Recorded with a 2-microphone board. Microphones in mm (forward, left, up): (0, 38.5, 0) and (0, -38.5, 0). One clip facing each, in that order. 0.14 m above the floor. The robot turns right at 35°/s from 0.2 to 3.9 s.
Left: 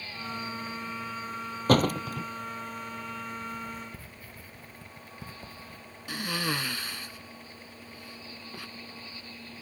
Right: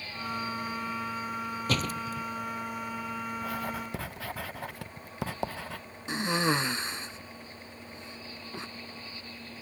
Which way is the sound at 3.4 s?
80° right.